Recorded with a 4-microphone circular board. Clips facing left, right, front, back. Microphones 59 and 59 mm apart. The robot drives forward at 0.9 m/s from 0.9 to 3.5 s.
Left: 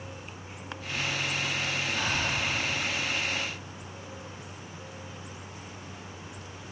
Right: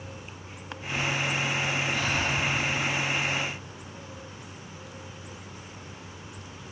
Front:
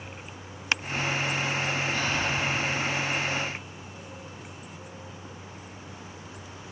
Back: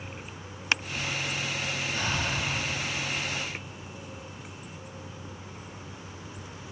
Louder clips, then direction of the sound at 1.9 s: Right 2 dB, front 3 dB; 175° left.